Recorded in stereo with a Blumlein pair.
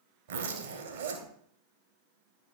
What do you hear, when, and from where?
0.3 s a zipper: 65° right, 1.9 m